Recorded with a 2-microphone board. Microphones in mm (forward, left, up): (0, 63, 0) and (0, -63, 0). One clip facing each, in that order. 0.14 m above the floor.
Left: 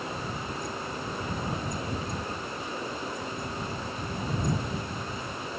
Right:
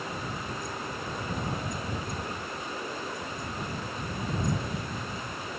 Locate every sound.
Only background noise.